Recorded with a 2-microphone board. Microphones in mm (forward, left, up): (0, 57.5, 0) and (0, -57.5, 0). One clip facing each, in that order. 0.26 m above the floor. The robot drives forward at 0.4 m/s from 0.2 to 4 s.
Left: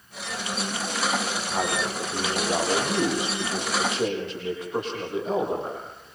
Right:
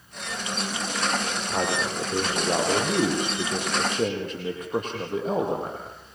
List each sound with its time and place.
1.5 s a man speaking: 45° right (ahead or behind), 9 m